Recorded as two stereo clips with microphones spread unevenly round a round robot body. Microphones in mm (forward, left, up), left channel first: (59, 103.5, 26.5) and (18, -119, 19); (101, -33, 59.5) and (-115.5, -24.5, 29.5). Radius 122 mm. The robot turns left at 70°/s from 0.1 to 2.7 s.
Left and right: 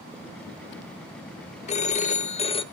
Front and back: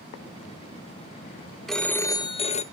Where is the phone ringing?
100° left, 0.5 m; by 2.6 s 35° left, 0.5 m.